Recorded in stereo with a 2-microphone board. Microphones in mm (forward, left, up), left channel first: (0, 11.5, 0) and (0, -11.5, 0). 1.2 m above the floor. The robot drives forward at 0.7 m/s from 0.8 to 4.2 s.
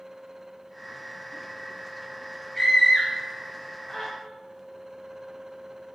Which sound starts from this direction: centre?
A scream, at 2.5 s.